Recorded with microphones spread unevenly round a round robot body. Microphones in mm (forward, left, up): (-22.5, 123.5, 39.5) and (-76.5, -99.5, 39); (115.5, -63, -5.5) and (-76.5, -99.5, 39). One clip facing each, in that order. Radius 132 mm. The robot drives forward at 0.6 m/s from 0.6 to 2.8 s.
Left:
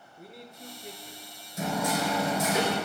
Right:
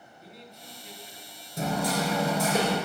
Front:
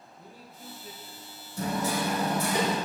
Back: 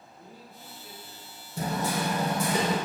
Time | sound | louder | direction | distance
0.2 | a man speaking | left 4 dB, even | 85° left | 1.3 m
1.6 | hammering | right 1 dB, even | 160° right | 4 m